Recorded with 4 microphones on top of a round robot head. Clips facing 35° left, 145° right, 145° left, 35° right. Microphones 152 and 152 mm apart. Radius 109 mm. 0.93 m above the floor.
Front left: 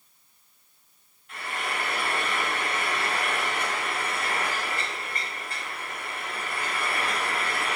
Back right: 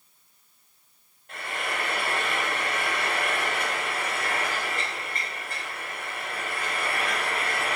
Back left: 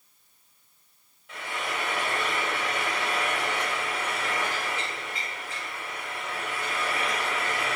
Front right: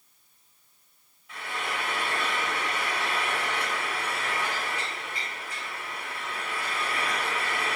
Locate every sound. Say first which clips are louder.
1.3 s frying: even, back left 1 dB; 165° left, 4 m